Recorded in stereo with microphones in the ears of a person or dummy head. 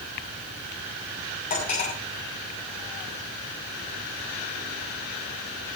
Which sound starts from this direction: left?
Cutlery clinking, at 1.5 s.